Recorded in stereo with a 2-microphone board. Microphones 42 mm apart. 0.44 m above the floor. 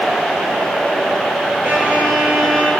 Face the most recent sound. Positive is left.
turn(degrees=-40)  # may be behind; listen again after turning